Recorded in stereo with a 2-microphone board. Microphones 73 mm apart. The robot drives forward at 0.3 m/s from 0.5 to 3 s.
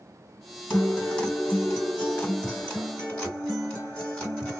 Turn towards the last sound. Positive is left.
turn(degrees=15)  # may be behind; listen again after turning